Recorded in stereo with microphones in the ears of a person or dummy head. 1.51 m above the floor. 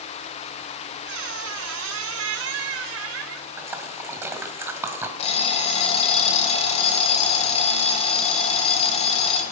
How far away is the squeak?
About 1.5 m.